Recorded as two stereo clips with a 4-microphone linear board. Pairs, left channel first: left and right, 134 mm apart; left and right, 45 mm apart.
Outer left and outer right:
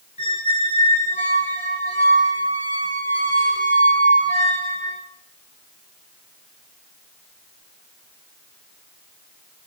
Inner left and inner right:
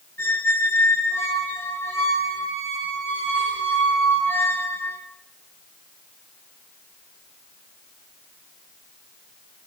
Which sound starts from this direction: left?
A squeak, at 0.2 s.